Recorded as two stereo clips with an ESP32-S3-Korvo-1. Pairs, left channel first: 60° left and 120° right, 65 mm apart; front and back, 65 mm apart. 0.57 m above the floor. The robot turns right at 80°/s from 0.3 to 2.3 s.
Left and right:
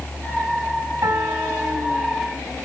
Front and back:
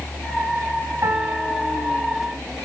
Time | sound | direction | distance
1.0 | a piano | 135° right | 3 m